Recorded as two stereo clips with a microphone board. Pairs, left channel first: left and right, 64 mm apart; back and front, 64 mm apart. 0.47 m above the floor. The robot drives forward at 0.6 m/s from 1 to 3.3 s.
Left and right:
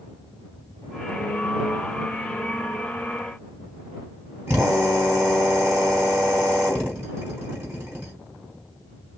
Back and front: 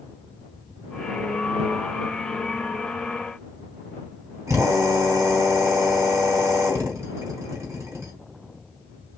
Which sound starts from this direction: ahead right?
A drill, at 4.5 s.